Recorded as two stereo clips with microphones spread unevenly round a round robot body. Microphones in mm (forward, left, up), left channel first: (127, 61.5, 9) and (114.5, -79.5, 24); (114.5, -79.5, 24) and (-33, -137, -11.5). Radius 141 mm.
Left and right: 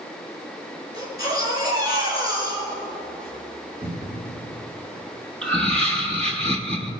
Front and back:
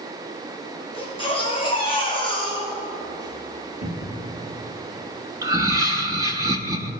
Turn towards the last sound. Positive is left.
turn(degrees=160)